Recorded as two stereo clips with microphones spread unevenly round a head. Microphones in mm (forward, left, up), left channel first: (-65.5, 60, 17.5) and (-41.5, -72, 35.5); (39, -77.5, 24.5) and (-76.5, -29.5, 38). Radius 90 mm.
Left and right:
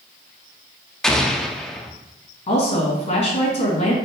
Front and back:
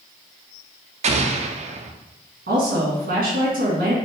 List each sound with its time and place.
1.0 s an explosion: straight behind, 0.6 m
2.5 s a woman speaking: 135° left, 2.0 m